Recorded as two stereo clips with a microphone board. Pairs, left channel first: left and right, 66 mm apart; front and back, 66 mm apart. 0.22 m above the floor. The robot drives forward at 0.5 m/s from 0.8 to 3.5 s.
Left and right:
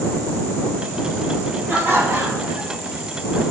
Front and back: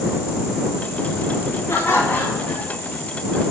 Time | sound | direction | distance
1.7 | laughter | 40° right | 1.6 m